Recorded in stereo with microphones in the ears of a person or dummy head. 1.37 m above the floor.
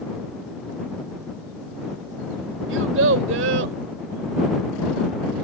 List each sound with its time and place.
2.7 s a child speaking: 85° right